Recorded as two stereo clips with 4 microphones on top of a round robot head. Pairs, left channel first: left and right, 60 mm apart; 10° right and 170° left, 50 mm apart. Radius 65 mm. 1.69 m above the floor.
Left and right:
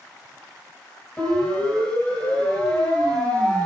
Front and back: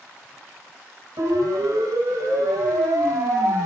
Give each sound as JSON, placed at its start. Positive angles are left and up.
{"t": 1.2, "sound": "a siren", "azimuth_deg": 160, "distance_m": 9.5}